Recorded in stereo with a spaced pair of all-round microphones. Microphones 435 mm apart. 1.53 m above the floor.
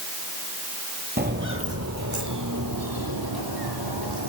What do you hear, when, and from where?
1.2 s footsteps: 20° right (ahead or behind), 1.7 m; by 4.3 s 65° right (ahead or behind), 3.5 m